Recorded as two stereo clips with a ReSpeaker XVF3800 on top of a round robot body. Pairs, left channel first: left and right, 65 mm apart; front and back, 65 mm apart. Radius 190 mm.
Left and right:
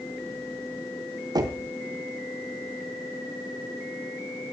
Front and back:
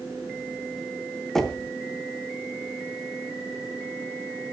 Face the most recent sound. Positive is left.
turn(degrees=-85)